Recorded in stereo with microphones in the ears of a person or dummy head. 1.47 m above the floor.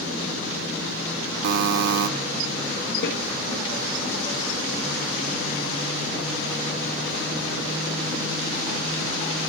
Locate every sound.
1.4 s a buzzer: 55° right (ahead or behind), 0.7 m
3.0 s a snare drum: 65° left (ahead or behind), 1.8 m